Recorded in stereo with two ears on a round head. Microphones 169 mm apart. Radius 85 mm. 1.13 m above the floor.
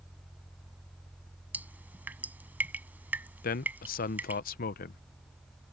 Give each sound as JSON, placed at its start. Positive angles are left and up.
{"t": 1.5, "sound": "dripping", "side_deg": -10}
{"t": 3.4, "sound": "a man speaking", "side_deg": 50}